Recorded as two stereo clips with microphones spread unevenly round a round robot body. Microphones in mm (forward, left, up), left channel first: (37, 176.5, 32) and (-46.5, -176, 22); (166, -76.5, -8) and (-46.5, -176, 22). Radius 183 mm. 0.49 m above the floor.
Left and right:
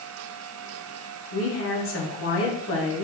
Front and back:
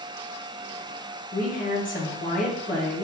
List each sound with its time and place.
1.3 s a woman speaking: 45° left, 1.2 m